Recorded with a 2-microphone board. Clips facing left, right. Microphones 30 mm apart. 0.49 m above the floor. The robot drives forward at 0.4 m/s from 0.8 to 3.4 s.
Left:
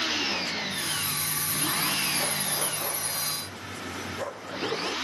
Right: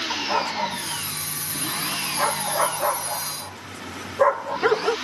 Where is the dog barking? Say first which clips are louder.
Right 4 dB; 80° right; by 5.0 s 85° right.